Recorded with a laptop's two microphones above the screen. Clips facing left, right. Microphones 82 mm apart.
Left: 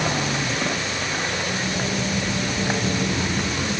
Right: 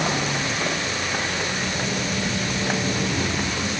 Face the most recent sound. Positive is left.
No sound to turn to.